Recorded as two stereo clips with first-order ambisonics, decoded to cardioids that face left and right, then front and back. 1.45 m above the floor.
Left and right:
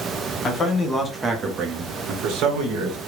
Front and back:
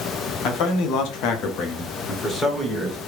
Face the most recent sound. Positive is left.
turn(degrees=-85)